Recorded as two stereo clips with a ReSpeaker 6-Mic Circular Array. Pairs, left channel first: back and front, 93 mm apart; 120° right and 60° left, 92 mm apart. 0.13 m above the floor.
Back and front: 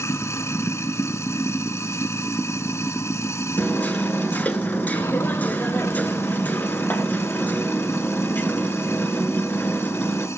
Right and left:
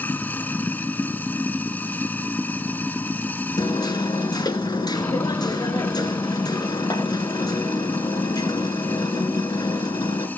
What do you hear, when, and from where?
0.0 s running water: 170° right, 0.8 m
3.6 s hammering: 115° right, 1.4 m